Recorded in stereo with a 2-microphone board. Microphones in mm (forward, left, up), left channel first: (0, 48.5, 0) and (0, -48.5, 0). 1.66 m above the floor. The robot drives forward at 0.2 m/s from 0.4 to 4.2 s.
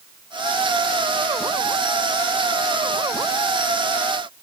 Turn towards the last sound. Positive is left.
No sound to turn to.